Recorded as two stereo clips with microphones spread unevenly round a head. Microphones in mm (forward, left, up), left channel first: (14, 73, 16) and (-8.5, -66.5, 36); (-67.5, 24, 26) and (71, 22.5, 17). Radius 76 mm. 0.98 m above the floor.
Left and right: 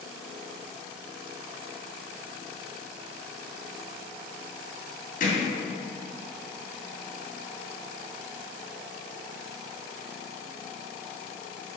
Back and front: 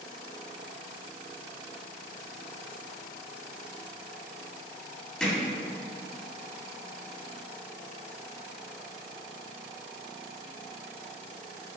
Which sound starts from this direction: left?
Hammering, at 5.2 s.